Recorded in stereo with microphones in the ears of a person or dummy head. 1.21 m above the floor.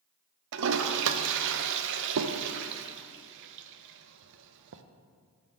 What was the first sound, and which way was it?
A toilet flushing, 60° right (ahead or behind).